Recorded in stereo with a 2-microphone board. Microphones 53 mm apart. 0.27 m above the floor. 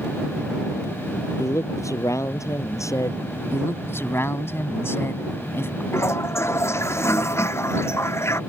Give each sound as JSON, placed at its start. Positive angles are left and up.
{"t": 1.4, "sound": "a man speaking", "side_deg": 80}
{"t": 3.5, "sound": "a man speaking", "side_deg": 55}
{"t": 5.9, "sound": "a toilet flushing", "side_deg": 55}